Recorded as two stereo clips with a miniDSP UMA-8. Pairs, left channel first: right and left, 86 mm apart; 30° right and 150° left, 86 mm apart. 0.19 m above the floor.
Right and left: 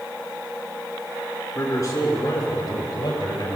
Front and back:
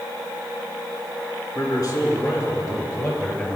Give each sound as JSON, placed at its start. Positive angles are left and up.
{"t": 1.6, "sound": "a man speaking", "azimuth_deg": -50, "distance_m": 2.5}